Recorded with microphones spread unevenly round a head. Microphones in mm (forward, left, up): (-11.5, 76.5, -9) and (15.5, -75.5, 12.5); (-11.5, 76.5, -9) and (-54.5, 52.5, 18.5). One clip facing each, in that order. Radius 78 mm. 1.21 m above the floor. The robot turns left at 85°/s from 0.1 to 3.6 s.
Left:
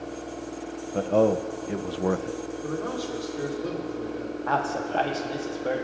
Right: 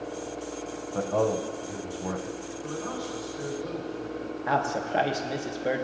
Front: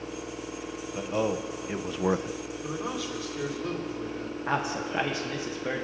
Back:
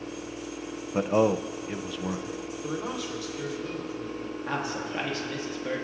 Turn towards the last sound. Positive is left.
turn(degrees=0)